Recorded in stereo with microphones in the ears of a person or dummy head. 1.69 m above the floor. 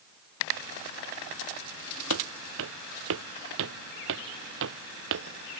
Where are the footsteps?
80° right; by 5.6 s 75° right (ahead or behind).